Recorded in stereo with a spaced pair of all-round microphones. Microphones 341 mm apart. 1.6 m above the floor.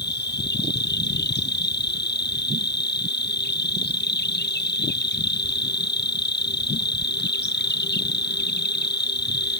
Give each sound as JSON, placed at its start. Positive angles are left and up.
{"t": 0.0, "sound": "an insect", "side_deg": 30}